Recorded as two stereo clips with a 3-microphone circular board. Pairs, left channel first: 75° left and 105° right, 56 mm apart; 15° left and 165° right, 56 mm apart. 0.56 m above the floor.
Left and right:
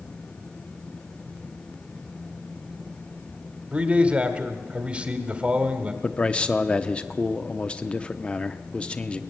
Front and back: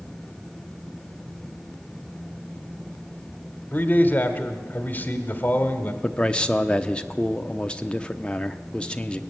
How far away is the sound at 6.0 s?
About 0.6 m.